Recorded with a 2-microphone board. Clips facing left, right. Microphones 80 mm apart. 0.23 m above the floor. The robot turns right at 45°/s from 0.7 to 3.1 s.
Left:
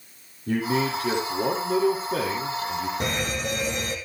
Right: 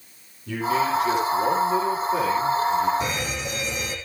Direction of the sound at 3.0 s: 55° left (ahead or behind).